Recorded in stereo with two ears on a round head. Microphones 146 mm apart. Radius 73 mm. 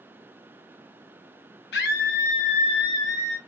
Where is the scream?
70° left (ahead or behind), 1.1 m; by 3.4 s 10° left (ahead or behind), 1.1 m.